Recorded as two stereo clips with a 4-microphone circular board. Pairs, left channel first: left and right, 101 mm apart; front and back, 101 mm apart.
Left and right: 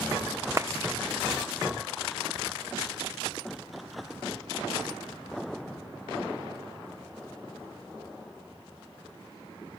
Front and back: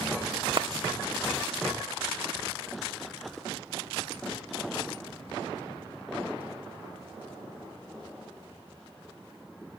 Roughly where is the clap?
Behind right.